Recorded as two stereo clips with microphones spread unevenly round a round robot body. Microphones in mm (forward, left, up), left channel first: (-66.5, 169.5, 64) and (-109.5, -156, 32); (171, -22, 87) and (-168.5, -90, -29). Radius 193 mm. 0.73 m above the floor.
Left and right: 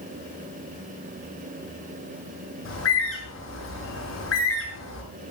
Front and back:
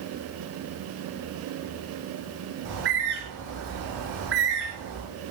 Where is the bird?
130° left, 8 m.